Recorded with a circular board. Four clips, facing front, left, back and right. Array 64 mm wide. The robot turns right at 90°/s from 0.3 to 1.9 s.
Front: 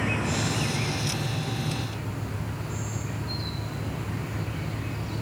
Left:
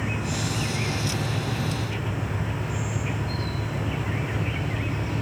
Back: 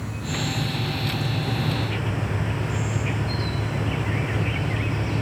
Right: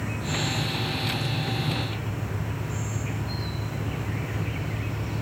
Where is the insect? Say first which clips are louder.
Left 1 dB, front 2 dB; 15° left, 1.1 m; by 5.2 s 160° left, 1.1 m.